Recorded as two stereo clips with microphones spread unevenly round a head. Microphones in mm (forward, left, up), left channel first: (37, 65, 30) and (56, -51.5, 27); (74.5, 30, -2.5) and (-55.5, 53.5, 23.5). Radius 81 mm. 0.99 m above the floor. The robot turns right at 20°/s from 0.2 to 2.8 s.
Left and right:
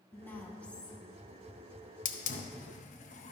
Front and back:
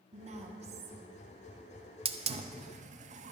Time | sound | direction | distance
0.1 | a woman speaking | 165° left | 0.9 m
2.0 | a hiss | 120° left | 0.6 m